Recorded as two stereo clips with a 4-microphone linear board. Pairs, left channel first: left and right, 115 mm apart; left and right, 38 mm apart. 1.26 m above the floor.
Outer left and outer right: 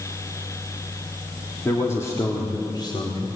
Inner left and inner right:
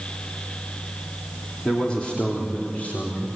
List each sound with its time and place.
1.6 s a man speaking: 20° left (ahead or behind), 3.5 m; by 3.3 s 45° left (ahead or behind), 4.5 m